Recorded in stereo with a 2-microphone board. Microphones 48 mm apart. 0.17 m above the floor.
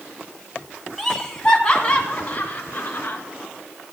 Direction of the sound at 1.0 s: 5° left (ahead or behind).